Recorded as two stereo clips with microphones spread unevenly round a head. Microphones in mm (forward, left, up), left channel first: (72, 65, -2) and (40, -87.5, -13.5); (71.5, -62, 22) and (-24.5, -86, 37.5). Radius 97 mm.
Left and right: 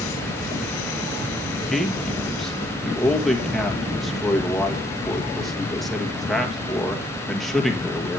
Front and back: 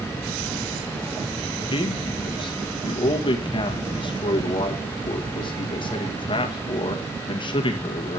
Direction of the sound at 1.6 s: 10° right.